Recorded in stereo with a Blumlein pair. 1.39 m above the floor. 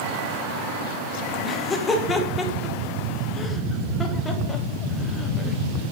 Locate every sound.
1.4 s laughter: 15° left, 1.2 m